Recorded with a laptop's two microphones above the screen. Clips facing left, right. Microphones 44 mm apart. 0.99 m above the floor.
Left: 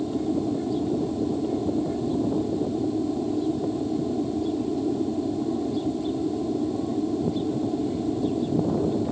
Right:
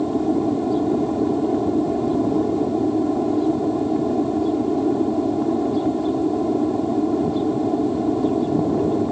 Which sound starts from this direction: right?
An aircraft, at 0.0 s.